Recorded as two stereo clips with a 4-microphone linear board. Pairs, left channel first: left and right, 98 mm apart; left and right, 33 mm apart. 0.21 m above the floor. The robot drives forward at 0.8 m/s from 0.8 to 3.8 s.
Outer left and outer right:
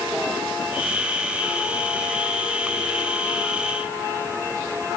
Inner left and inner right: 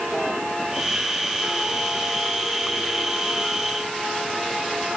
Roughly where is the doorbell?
I don't hear a doorbell.